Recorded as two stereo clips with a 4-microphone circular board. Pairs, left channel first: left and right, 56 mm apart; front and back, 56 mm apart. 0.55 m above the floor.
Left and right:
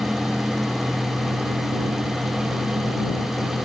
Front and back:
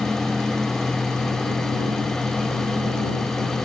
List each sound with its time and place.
Only background noise.